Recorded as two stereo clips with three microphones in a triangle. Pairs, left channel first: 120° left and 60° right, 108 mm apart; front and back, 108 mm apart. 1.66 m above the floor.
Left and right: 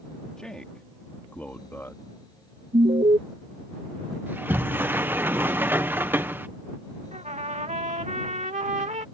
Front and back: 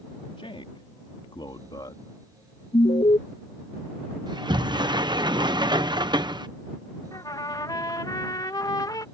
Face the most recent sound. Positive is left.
turn(degrees=-55)